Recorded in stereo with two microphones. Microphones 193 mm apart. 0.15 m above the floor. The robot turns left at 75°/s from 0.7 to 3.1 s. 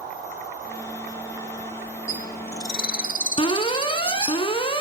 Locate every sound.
2.1 s a bird: 40° left (ahead or behind), 1.2 m; by 4.4 s 50° left (ahead or behind), 1.2 m
3.4 s an alarm: 30° left (ahead or behind), 1.2 m